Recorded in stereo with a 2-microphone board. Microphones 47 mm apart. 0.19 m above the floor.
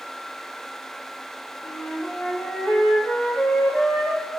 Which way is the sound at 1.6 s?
50° left (ahead or behind).